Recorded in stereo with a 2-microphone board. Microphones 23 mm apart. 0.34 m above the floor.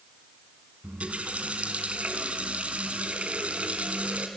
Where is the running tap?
70° right (ahead or behind), 2.5 m.